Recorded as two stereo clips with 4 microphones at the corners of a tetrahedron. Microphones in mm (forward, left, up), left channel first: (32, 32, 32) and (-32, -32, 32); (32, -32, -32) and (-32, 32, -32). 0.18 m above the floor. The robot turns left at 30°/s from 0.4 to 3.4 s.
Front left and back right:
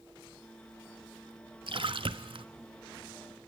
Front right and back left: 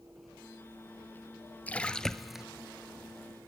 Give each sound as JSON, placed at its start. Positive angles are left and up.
{"t": 1.7, "sound": "a splash", "azimuth_deg": -115, "distance_m": 0.7}